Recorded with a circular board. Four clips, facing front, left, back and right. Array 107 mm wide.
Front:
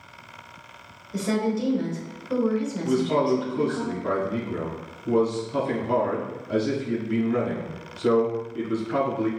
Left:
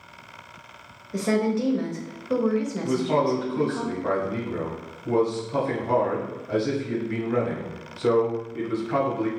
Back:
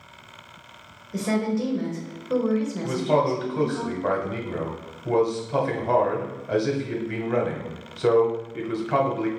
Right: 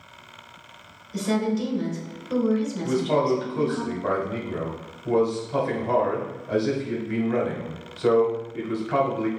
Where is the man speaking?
165° right, 1.6 m.